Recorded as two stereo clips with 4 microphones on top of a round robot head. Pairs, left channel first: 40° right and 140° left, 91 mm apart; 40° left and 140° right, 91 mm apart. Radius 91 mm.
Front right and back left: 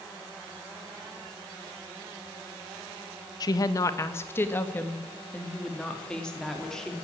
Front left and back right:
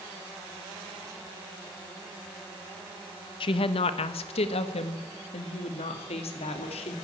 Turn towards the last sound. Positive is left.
turn(degrees=45)